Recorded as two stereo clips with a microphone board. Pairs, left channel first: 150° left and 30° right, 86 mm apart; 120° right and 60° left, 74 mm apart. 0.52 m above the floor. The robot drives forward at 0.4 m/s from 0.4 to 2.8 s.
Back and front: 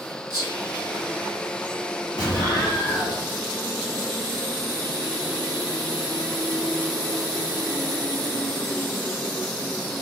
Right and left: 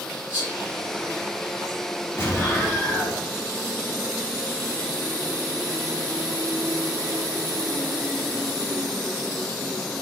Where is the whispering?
10° right, 1.7 m; by 1.8 s 15° right, 1.3 m.